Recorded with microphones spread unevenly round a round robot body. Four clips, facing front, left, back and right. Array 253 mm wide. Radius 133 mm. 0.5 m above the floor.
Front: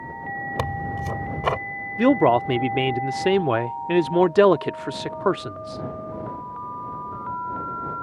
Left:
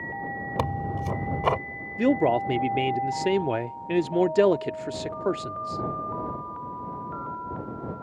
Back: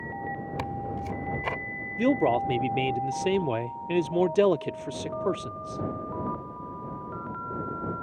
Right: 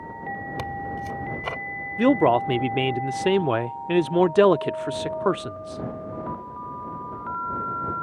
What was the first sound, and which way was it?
Tearing paper, 40° left.